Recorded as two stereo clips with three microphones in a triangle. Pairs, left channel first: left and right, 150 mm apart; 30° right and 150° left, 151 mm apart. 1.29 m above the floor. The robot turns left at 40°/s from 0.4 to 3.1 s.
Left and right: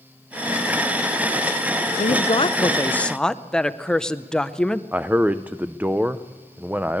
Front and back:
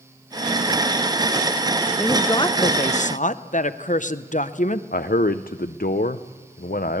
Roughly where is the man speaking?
Ahead.